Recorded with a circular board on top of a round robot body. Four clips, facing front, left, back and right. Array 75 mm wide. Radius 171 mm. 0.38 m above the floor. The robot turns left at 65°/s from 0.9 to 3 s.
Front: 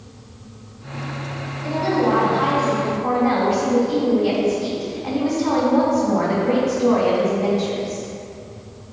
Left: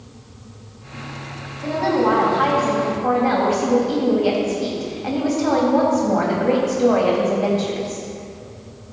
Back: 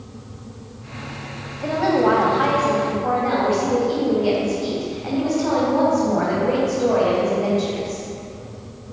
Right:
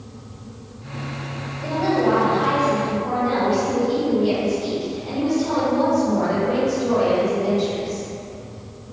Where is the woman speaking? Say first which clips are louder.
Left 1 dB, back 2 dB; 165° right, 3.5 m; by 8.1 s 105° left, 3.5 m.